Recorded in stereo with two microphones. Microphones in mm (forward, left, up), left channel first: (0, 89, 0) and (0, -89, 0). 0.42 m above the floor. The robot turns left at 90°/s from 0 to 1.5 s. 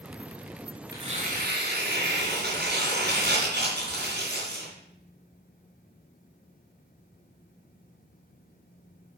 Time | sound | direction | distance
0.9 | tearing paper | 20° right | 2.5 m